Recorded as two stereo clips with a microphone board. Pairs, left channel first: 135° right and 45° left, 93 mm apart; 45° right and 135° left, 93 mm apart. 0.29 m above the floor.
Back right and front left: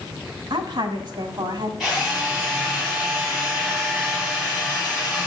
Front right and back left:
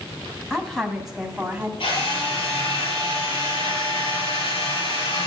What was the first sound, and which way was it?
A woman speaking, 40° left.